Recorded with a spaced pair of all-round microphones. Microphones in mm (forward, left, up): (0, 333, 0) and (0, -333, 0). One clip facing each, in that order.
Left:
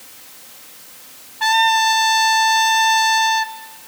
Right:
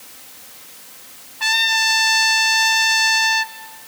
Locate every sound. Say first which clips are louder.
1.4 s a trumpet: left 10 dB; 15° right (ahead or behind), 0.7 m